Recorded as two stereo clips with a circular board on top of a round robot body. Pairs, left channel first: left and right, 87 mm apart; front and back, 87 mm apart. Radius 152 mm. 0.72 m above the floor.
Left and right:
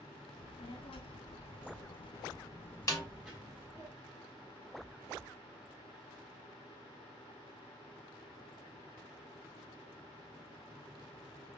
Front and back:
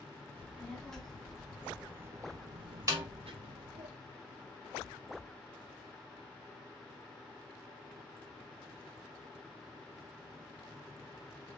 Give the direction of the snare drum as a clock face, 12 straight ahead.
8 o'clock.